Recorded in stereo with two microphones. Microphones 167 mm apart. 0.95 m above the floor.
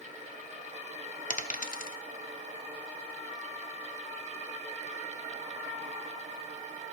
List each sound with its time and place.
1.3 s a dropped coin: 55° left (ahead or behind), 0.6 m